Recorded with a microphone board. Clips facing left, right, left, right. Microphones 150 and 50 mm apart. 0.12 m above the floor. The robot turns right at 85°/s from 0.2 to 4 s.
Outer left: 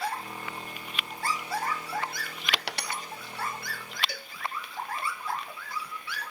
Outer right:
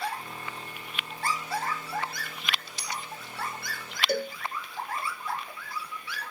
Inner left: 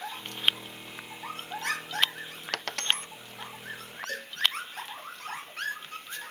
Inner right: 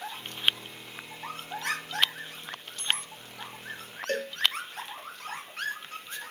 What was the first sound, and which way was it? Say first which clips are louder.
A dropped coin: outer left 7 dB, inner left 3 dB; 85° left.